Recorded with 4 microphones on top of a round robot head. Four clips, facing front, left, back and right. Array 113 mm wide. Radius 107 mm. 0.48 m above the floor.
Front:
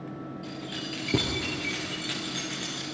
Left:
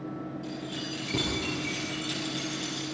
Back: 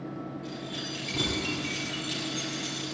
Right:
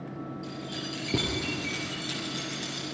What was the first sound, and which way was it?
Keys jangling, 25° right.